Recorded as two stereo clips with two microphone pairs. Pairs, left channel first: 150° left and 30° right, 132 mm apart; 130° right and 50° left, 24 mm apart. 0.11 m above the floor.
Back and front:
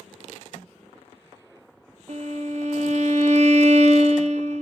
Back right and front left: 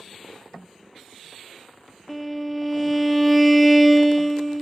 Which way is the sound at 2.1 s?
40° right.